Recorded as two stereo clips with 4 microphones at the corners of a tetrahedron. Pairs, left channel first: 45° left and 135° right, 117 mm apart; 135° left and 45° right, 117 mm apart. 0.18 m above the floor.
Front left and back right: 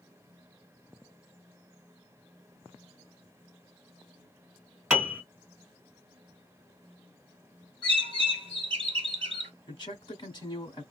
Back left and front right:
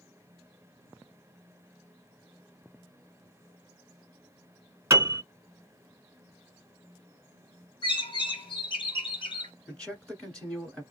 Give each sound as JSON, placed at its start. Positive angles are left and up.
{"t": 4.9, "sound": "a piano", "azimuth_deg": -65, "distance_m": 1.4}
{"t": 7.8, "sound": "a bird", "azimuth_deg": 180, "distance_m": 1.2}
{"t": 9.7, "sound": "a man speaking", "azimuth_deg": 60, "distance_m": 1.3}